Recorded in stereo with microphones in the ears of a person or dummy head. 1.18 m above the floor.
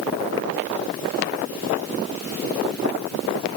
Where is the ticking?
I don't hear ticking.